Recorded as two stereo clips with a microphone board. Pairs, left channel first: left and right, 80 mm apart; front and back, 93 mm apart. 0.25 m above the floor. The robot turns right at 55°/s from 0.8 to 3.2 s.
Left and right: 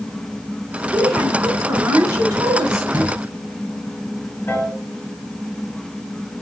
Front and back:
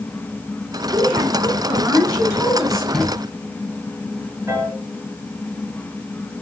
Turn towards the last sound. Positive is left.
turn(degrees=135)